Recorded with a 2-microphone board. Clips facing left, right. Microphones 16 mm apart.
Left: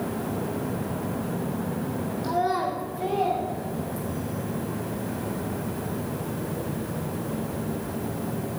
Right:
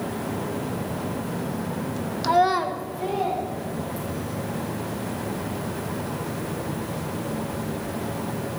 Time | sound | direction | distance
2.2 | a child speaking | 55° right (ahead or behind) | 0.5 m